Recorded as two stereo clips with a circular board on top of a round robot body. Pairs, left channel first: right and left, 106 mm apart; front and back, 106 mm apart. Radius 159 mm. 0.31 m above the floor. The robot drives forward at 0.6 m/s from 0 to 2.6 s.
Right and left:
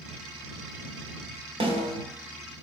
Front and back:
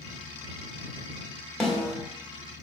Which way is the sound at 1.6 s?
85° left.